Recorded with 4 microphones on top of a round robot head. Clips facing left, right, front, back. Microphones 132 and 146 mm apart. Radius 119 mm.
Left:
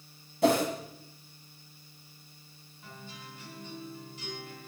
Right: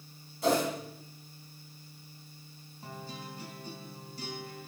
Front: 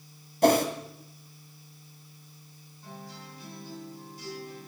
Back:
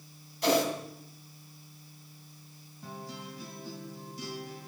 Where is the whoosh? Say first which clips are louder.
Left 3 dB, front 5 dB; 45° left, 2 m.